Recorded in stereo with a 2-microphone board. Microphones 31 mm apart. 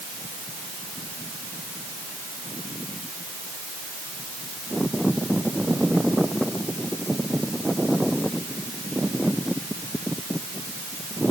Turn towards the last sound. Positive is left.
No sound to turn to.